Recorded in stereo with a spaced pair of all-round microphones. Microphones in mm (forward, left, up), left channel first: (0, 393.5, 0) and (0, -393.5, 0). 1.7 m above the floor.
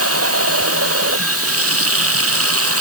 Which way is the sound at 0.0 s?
20° right (ahead or behind).